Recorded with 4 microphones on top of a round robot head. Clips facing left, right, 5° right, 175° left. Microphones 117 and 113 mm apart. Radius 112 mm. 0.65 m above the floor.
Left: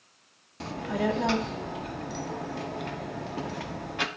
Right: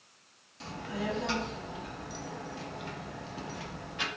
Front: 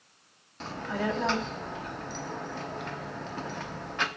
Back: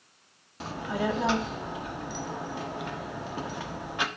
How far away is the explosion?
I don't hear an explosion.